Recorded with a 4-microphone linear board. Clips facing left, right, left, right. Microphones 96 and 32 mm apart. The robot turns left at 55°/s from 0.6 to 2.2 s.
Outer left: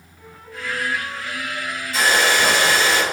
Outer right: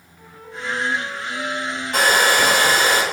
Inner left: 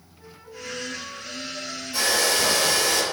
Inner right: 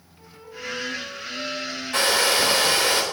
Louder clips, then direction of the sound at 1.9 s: Outer right 1 dB, inner right 2 dB; 60° right (ahead or behind).